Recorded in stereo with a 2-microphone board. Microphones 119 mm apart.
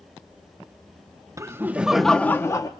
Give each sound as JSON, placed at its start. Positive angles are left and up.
{"t": 1.4, "sound": "laughter", "side_deg": -25, "distance_m": 0.7}